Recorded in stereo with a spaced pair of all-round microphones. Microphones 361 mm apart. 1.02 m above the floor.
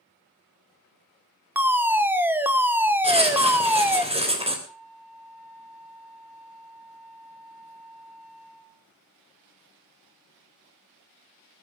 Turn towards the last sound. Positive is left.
turn(degrees=75)  # may be behind; listen again after turning